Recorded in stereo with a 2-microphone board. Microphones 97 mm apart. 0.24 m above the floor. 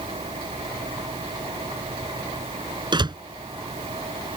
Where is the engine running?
85° right.